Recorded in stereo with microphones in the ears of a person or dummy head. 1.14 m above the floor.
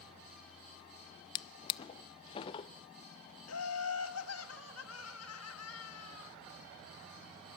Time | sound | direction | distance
1.4 | a drawer | 35° left (ahead or behind) | 0.6 m
3.5 | laughter | 80° left | 1.7 m